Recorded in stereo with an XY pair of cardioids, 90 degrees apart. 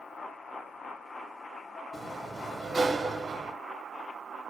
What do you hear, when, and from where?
1.9 s a sliding door: 30° right, 0.6 m